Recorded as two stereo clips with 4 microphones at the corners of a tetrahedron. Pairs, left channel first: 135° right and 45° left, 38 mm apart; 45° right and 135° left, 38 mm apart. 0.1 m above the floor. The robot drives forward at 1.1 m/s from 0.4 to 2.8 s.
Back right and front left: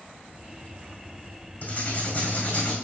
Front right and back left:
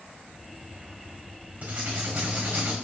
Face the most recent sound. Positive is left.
turn(degrees=180)